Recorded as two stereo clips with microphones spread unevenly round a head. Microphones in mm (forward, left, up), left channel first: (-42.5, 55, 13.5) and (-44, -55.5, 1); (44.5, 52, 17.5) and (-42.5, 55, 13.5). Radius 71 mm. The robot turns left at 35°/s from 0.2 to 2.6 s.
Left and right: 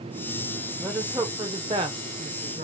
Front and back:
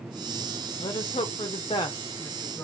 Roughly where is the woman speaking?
Ahead.